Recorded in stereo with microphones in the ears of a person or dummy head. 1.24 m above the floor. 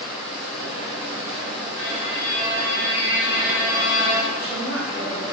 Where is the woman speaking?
60° right (ahead or behind), 1.5 m.